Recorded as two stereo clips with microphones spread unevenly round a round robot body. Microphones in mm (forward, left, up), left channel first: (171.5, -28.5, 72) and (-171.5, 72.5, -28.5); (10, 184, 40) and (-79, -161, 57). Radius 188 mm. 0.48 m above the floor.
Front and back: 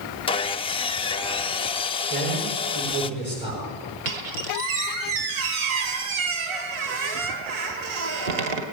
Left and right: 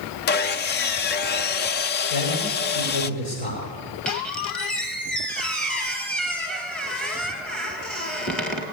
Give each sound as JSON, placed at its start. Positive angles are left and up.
{"t": 0.3, "sound": "sawing", "azimuth_deg": 75, "distance_m": 0.5}
{"t": 2.1, "sound": "a man speaking", "azimuth_deg": 95, "distance_m": 8.0}
{"t": 4.0, "sound": "a squeak", "azimuth_deg": 165, "distance_m": 2.0}